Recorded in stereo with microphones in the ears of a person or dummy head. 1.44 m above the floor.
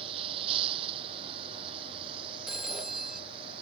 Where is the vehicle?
30° right (ahead or behind).